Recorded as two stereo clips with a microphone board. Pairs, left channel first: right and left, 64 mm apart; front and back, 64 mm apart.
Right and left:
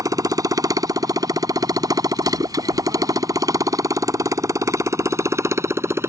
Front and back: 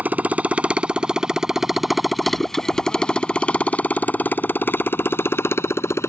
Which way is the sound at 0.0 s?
115° left.